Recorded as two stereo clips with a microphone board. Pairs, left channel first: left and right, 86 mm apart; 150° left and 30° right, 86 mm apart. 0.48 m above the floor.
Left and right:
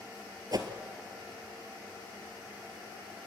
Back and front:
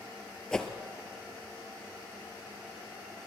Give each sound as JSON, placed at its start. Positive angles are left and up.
{"t": 0.5, "sound": "a whoosh", "azimuth_deg": -130, "distance_m": 1.4}